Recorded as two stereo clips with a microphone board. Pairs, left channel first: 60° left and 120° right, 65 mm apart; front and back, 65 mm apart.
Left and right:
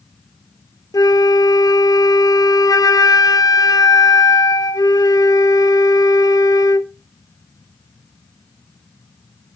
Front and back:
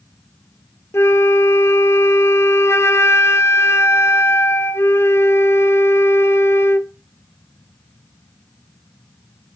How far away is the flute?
About 0.8 m.